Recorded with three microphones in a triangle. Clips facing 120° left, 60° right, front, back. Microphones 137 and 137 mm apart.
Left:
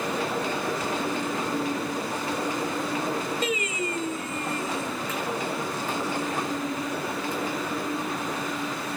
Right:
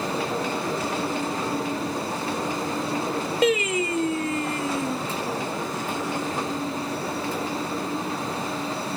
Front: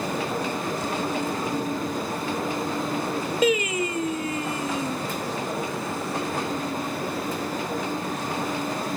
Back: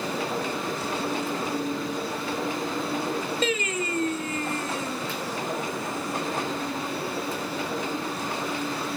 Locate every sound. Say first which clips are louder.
3.4 s singing: right 7 dB, front 8 dB; 80° right, 0.5 m